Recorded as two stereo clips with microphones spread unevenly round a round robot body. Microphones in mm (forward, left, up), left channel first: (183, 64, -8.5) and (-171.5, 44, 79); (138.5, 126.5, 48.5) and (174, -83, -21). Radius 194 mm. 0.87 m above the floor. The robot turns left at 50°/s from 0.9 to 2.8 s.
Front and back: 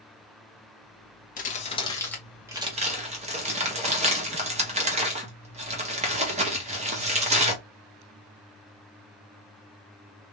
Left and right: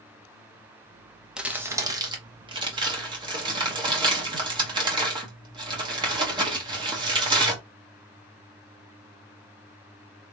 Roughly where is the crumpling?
Ahead.